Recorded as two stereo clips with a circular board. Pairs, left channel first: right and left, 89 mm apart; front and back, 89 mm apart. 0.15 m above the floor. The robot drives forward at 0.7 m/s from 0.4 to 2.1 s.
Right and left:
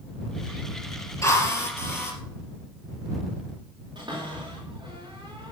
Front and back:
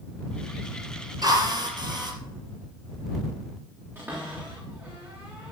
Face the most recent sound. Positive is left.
turn(degrees=120)